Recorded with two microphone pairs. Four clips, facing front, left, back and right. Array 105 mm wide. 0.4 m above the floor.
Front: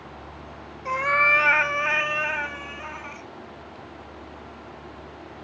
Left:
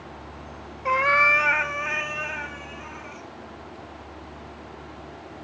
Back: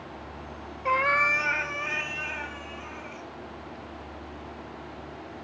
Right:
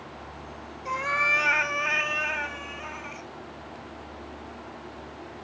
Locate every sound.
0.8 s a cat meowing: 125° left, 0.6 m; by 3.3 s 15° right, 2 m